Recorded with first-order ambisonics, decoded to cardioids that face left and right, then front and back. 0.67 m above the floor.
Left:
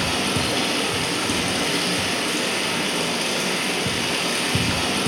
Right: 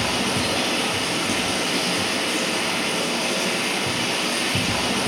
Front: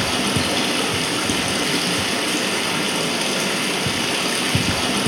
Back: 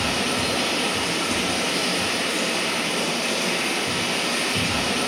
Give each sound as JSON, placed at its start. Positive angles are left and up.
{"t": 0.0, "sound": "running water", "azimuth_deg": 15, "distance_m": 2.0}